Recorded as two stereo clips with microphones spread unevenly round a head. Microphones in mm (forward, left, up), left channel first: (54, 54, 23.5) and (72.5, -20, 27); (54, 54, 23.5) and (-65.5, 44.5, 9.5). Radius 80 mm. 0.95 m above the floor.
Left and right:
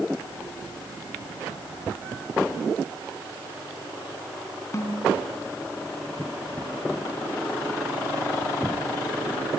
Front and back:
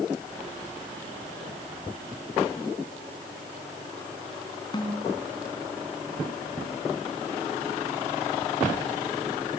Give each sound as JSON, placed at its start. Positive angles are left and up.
{"t": 4.7, "sound": "a snare drum", "azimuth_deg": 55, "distance_m": 4.5}